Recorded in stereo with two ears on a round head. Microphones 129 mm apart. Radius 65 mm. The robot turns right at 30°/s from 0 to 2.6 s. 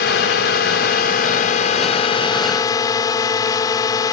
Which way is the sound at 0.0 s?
75° left.